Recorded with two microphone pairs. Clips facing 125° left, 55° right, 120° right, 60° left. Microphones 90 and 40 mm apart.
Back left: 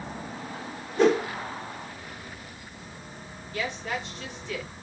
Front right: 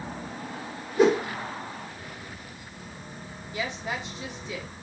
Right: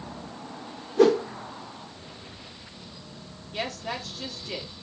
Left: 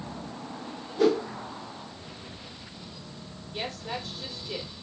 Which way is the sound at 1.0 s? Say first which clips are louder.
Front right 1 dB, right 4 dB; 135° right.